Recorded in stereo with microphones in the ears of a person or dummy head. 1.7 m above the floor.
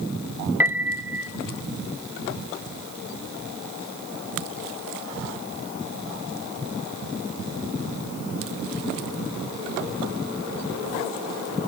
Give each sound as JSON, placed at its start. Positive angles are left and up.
{"t": 0.6, "sound": "a piano", "side_deg": -10, "distance_m": 1.0}